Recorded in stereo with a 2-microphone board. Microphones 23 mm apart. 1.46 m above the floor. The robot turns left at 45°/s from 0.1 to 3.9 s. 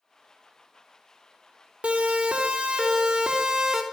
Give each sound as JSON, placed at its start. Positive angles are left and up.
{"t": 1.8, "sound": "a siren", "side_deg": -80, "distance_m": 3.5}